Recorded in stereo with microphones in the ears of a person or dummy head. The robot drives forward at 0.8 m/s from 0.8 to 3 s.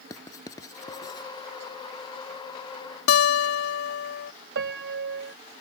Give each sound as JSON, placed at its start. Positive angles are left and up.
{"t": 0.1, "sound": "writing", "side_deg": 25}
{"t": 3.1, "sound": "a guitar", "side_deg": 75}
{"t": 4.5, "sound": "a piano", "side_deg": -65}